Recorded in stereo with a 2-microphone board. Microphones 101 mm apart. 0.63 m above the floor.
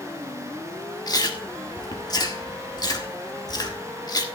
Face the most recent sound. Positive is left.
turn(degrees=40)  # may be behind; listen again after turning